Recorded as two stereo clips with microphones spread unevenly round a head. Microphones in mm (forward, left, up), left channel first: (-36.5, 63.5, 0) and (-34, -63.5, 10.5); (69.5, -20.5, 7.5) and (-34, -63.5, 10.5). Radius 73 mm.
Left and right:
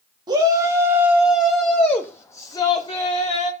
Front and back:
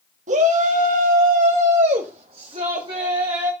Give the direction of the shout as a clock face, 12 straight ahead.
5 o'clock.